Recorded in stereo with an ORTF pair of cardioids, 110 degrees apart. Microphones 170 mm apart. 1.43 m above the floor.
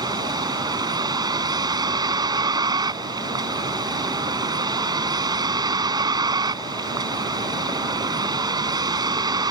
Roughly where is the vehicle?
Ahead right.